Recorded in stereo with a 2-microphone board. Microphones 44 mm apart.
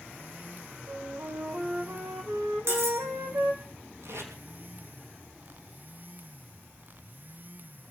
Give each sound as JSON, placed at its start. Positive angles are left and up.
{"t": 0.9, "sound": "a flute", "side_deg": -75, "distance_m": 4.0}
{"t": 2.7, "sound": "cutlery clinking", "side_deg": -80, "distance_m": 7.0}
{"t": 4.0, "sound": "tape being pulled", "side_deg": -80, "distance_m": 5.0}